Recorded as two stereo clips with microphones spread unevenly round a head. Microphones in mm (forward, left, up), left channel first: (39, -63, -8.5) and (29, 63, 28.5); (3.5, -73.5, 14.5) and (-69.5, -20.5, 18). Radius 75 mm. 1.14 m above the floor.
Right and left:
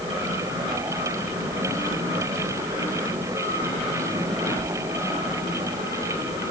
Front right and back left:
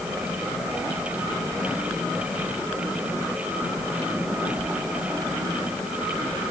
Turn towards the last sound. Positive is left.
No sound to turn to.